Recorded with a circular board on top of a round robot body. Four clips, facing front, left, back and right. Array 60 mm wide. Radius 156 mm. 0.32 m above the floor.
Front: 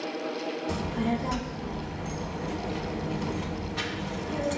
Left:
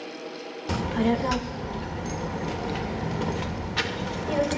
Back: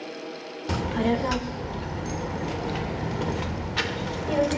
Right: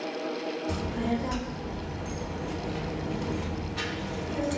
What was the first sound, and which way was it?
A child speaking, 135° left.